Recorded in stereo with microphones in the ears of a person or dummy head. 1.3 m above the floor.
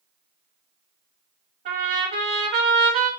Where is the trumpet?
30° right (ahead or behind), 0.8 m.